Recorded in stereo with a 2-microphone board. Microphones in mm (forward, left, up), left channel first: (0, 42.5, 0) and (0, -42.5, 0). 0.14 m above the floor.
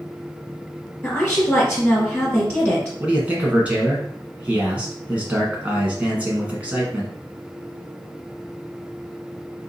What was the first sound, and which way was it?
A woman speaking, 15° left (ahead or behind).